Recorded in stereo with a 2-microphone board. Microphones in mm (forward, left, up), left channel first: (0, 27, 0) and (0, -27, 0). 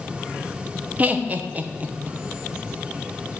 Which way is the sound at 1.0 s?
30° right (ahead or behind).